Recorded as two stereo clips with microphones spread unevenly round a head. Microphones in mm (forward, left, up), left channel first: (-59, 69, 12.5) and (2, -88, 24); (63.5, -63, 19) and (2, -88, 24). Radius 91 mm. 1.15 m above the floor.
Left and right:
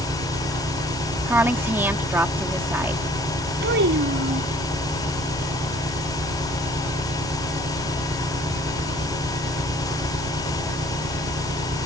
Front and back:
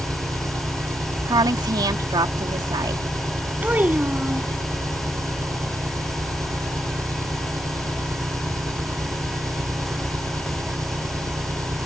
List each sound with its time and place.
0.0 s an engine running: 120° right
1.3 s a woman speaking: 145° right
3.6 s a child speaking: 95° right